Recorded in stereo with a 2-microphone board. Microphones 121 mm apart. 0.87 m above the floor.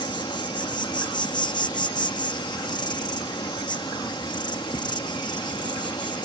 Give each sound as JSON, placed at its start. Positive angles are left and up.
{"t": 0.0, "sound": "an insect", "side_deg": 35}